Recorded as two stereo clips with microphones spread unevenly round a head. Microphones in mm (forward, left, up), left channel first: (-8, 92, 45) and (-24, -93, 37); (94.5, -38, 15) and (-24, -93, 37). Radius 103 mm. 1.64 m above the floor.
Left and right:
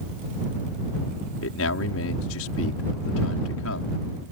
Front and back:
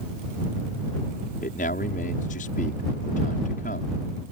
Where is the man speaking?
75° left.